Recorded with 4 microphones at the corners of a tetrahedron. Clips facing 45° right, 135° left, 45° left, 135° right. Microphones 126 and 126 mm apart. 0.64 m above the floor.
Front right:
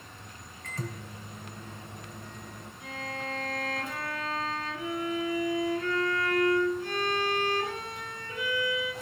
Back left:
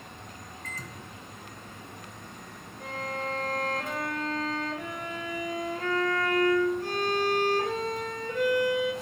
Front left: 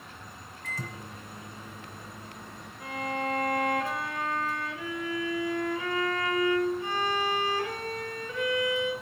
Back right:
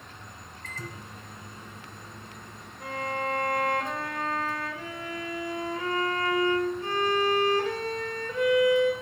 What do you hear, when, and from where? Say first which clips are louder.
0.6 s a microwave: front right 7 dB, front left 2 dB; 35° right, 2.5 m
2.8 s a violin: back left 4 dB, back right 1 dB; 170° left, 2.5 m